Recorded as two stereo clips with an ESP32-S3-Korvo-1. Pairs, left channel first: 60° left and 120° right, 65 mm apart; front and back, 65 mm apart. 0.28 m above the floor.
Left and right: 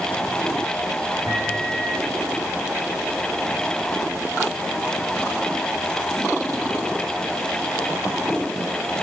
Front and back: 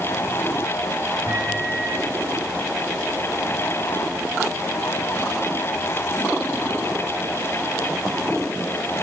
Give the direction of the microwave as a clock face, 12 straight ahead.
5 o'clock.